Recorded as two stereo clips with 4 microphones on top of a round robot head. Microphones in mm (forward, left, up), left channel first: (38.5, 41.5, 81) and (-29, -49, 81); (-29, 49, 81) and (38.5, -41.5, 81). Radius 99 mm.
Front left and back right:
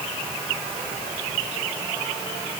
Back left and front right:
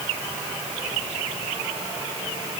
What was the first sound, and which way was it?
Only background noise.